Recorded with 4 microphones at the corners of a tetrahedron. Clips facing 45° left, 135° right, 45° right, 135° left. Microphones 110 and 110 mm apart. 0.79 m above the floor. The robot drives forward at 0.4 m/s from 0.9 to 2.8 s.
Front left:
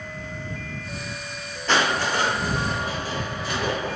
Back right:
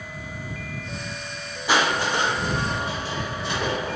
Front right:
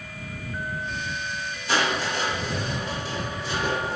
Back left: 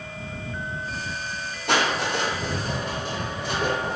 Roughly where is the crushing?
Behind left.